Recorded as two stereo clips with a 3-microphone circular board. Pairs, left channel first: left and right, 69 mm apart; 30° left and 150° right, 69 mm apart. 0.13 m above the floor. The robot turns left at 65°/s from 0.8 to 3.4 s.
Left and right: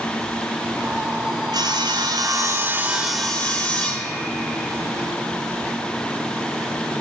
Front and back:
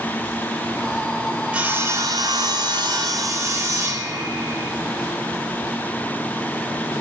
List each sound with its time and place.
1.5 s sawing: 75° right, 4 m; by 4.7 s 165° left, 4 m